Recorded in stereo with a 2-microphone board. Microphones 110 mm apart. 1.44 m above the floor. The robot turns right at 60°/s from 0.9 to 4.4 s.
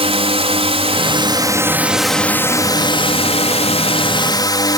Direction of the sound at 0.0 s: 70° right.